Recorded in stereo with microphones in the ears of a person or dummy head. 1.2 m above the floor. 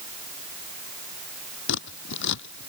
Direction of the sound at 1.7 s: 70° left (ahead or behind).